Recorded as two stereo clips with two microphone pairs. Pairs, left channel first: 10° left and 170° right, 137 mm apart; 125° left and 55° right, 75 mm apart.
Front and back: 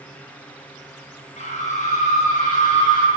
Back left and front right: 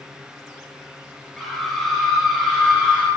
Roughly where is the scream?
Ahead left.